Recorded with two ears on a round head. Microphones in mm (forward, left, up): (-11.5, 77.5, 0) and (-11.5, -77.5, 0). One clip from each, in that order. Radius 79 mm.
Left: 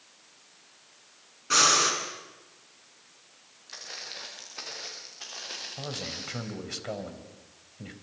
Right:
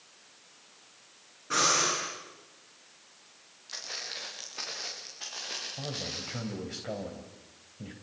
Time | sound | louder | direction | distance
1.5 | breathing | left 4 dB | 80° left | 7.5 m
3.7 | footsteps | right 2 dB | centre (ahead or behind) | 6.5 m
5.8 | a man speaking | even | 35° left (ahead or behind) | 3.5 m